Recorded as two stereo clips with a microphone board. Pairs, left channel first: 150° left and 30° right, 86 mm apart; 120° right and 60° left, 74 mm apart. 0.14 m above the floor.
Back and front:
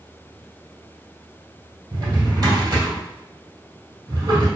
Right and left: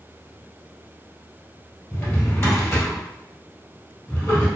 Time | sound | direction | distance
1.9 | a drawer | 60° right | 1.6 m